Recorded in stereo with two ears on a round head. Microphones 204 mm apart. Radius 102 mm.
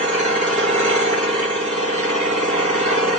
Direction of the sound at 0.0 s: 30° right (ahead or behind).